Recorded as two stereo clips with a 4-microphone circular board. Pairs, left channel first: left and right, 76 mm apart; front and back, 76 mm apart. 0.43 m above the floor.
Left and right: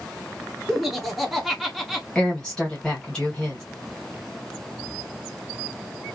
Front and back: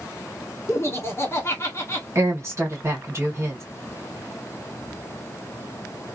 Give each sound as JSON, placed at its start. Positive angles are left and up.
{"t": 0.7, "sound": "laughter", "azimuth_deg": 0, "distance_m": 1.4}
{"t": 2.1, "sound": "a woman speaking", "azimuth_deg": 160, "distance_m": 1.4}